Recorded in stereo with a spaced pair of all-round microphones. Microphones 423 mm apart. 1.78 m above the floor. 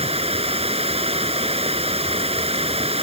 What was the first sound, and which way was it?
Running water, 15° right (ahead or behind).